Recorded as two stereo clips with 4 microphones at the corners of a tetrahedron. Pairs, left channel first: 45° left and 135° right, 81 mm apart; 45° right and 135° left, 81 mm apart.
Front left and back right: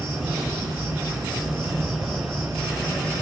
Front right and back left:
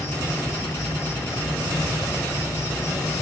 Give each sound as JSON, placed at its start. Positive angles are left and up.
{"t": 0.0, "sound": "an insect", "azimuth_deg": -95, "distance_m": 3.5}